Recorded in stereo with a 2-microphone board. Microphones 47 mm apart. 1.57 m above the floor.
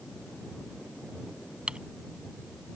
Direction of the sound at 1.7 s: 20° right (ahead or behind).